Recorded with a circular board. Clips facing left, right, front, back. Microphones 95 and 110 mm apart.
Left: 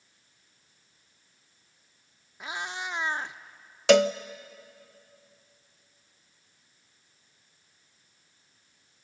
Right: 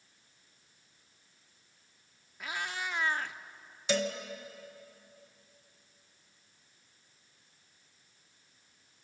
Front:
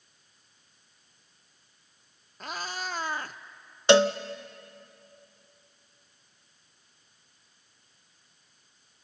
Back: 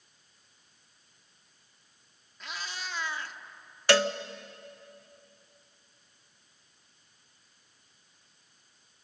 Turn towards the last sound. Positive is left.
turn(degrees=70)